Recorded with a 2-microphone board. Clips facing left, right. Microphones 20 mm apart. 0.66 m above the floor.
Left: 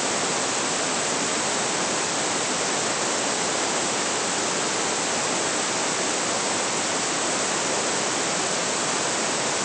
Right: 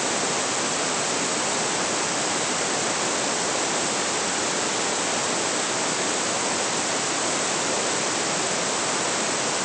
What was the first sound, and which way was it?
Only background noise.